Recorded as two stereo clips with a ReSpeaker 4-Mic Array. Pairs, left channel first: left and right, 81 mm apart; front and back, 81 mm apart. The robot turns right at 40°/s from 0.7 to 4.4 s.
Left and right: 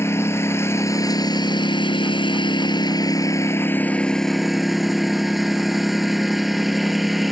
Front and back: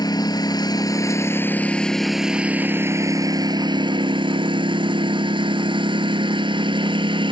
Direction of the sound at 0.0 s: 35° left.